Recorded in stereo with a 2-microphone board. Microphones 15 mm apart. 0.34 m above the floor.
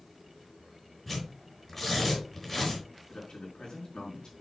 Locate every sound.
1.1 s tearing paper: 15° left (ahead or behind), 4 m
3.1 s a man speaking: 65° left (ahead or behind), 4.5 m